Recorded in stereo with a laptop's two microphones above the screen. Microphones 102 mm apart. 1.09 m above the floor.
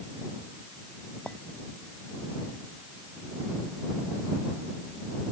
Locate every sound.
1.3 s a clink: 15° left (ahead or behind)